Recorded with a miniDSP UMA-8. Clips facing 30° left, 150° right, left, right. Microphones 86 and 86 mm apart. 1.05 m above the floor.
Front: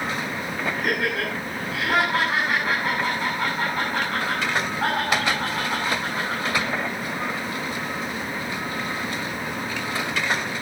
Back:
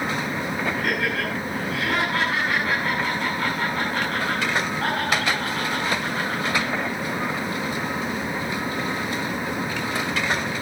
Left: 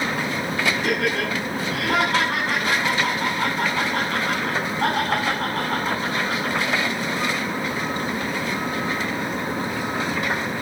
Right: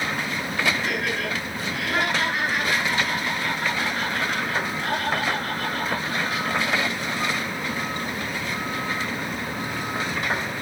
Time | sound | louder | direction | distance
0.8 | laughter | even, left 4 dB | 105° left | 9 m